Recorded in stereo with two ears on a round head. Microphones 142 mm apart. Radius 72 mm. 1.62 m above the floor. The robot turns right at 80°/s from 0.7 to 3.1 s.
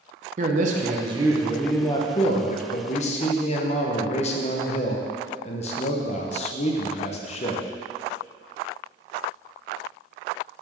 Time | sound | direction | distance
0.4 | a man speaking | 70° right | 0.8 m